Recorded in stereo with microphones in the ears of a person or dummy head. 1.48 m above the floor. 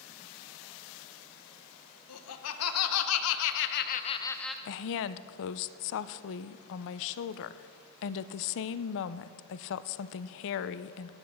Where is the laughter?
85° left, 1.7 m; by 4.5 s centre (ahead or behind), 0.6 m.